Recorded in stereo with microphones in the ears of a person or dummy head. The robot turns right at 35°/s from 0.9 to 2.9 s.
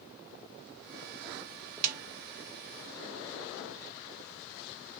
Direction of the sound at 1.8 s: 50° right (ahead or behind).